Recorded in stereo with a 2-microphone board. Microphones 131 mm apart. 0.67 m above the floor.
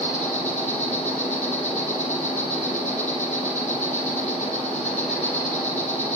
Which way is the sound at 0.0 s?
60° left (ahead or behind).